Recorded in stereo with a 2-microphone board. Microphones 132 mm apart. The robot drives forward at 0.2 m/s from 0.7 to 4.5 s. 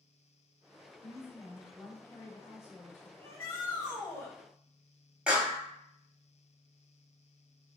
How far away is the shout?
About 1.4 m.